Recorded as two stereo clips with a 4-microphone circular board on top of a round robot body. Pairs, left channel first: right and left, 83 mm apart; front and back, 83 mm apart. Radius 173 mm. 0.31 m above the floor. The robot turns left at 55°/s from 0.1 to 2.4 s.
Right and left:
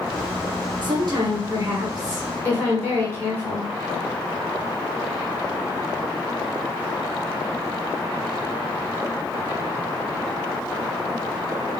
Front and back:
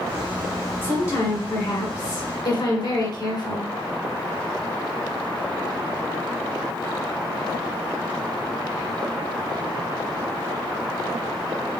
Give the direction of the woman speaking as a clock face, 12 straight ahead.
10 o'clock.